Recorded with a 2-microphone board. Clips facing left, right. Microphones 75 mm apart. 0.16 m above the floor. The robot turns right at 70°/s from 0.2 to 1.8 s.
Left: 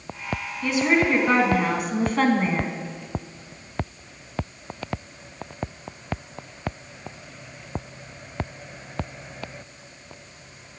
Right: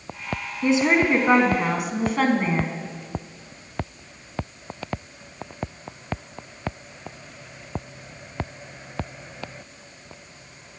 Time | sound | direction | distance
0.6 | a woman speaking | 25° right (ahead or behind) | 1.0 m